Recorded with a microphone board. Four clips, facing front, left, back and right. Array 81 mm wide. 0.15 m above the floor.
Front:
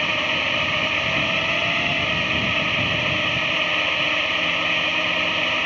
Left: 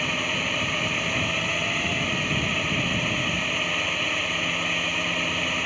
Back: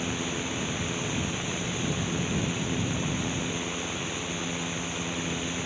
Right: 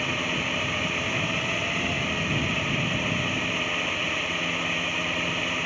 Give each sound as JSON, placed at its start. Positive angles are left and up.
{"t": 0.0, "sound": "a drone", "azimuth_deg": 5}